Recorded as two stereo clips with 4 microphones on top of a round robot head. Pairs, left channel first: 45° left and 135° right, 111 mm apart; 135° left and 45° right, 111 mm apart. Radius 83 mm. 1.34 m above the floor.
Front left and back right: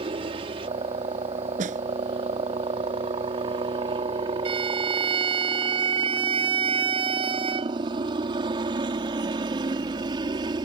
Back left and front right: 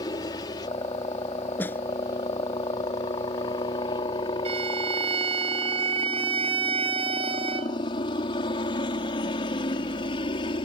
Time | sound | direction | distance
0.0 | a helicopter | 175° right | ?
1.6 | a snare drum | 155° right | ?
4.5 | a violin | 90° right | ?